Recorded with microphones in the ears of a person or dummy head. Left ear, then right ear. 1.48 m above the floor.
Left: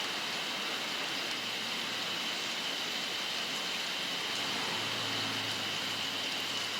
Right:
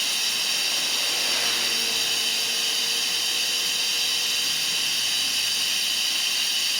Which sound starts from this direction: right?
Running water, at 0.0 s.